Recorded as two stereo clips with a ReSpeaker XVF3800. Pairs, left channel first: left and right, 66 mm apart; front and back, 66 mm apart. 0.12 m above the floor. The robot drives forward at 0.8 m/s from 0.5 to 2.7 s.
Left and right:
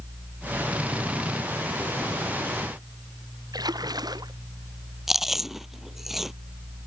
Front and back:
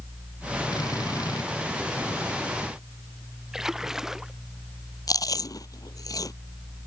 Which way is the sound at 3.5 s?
100° right.